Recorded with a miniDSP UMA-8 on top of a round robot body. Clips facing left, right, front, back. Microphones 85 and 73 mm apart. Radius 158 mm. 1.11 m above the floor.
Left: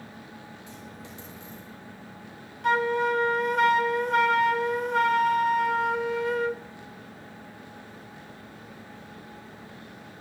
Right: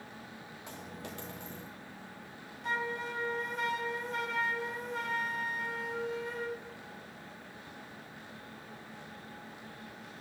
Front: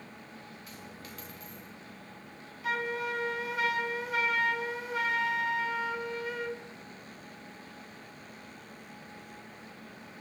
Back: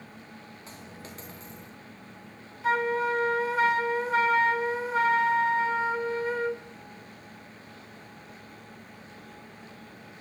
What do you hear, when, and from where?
0.7 s a dropped coin: 125° right, 1.4 m
2.6 s a flute: 120° left, 1.7 m